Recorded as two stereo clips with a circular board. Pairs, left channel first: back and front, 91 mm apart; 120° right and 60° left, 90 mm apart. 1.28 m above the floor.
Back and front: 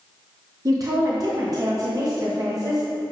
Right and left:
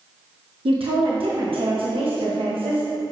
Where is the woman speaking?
45° left, 0.8 m.